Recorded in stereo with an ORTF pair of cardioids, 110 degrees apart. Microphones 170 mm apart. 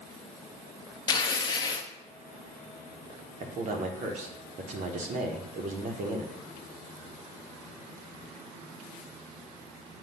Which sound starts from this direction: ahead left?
Tearing paper, at 1.1 s.